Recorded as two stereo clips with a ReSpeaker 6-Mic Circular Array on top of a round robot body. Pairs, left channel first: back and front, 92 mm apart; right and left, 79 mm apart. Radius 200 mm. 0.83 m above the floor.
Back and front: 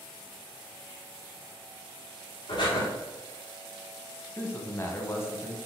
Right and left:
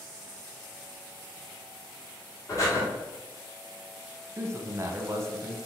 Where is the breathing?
140° right, 1.0 m.